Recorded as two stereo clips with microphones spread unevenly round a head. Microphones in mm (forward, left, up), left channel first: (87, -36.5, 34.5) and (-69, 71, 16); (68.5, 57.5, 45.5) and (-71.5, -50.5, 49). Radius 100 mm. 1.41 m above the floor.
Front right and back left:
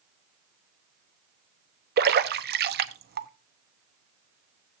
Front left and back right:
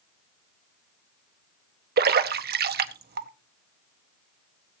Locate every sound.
2.0 s a splash: 175° right, 0.9 m